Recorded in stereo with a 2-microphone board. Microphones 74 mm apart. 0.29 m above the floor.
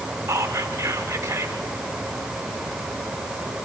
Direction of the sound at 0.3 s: 35° right (ahead or behind).